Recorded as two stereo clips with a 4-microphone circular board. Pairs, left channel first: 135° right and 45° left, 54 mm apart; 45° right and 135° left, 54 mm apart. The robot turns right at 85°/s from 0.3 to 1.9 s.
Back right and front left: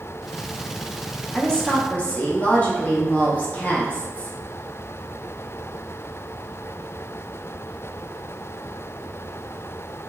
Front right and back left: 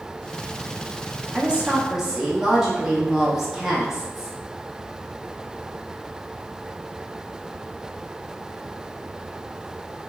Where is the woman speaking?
155° left, 0.6 m; by 4.3 s 160° right, 0.6 m.